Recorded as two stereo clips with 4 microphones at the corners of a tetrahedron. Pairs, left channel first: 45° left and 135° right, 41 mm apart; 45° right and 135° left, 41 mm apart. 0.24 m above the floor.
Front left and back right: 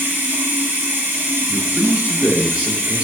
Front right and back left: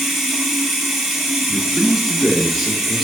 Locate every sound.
0.0 s running water: 140° right, 0.9 m
1.5 s a man speaking: 130° right, 1.0 m